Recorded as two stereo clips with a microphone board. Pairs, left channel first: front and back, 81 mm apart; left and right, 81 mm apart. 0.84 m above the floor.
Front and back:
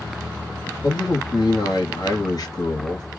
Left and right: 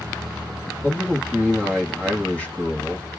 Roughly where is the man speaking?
Ahead.